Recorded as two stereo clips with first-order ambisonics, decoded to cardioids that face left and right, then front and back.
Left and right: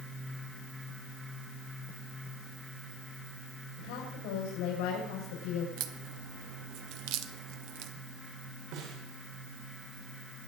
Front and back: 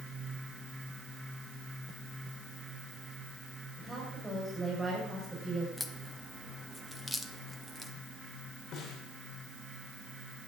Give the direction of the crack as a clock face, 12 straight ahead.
3 o'clock.